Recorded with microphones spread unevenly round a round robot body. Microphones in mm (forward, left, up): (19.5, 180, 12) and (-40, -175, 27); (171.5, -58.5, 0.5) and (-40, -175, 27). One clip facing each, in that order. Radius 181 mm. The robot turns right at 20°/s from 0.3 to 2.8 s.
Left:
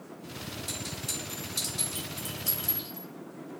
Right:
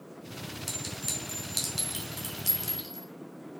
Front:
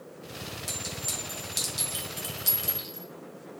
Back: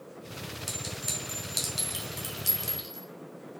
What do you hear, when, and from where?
0.7 s a clink: 110° right, 1.4 m; by 3.1 s 70° right, 1.4 m